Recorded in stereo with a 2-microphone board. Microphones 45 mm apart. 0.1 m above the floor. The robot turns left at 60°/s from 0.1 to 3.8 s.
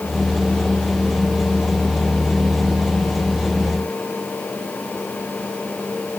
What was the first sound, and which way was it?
Only background noise.